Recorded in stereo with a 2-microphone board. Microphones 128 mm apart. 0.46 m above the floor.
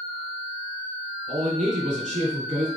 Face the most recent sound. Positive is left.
turn(degrees=-75)  # may be behind; listen again after turning